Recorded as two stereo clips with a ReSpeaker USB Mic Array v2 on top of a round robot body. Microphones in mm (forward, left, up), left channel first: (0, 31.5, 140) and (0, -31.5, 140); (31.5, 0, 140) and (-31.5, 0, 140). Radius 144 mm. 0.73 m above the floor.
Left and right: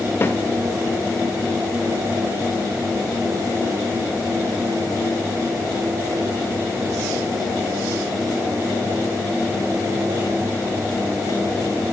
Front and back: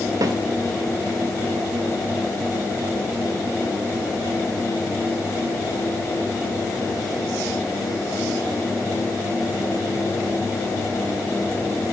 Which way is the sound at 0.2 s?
150° left.